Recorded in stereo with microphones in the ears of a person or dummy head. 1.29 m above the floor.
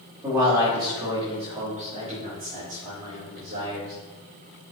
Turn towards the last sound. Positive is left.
turn(degrees=-45)  # may be behind; listen again after turning